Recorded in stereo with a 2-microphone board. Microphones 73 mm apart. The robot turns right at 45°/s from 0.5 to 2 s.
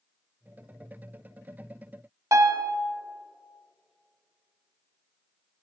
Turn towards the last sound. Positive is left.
turn(degrees=-50)  # may be behind; listen again after turning